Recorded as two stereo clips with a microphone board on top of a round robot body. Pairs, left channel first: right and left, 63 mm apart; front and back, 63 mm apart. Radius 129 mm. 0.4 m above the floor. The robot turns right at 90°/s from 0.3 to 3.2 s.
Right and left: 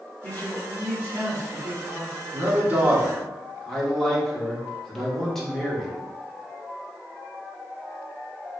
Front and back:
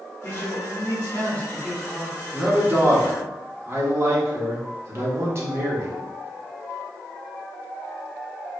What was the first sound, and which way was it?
A man speaking, 45° right.